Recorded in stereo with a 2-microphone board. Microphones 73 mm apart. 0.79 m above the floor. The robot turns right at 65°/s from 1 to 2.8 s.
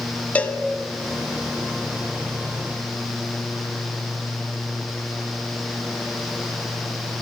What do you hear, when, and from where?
0.3 s a cowbell: 20° left (ahead or behind), 1.0 m